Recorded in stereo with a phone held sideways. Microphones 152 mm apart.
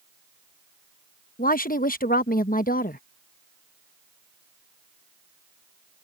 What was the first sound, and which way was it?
A woman speaking, 70° left (ahead or behind).